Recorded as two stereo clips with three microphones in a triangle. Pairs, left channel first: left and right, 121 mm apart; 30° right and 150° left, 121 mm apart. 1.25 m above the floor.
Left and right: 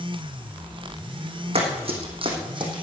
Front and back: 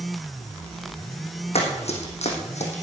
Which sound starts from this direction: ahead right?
Running footsteps, at 1.6 s.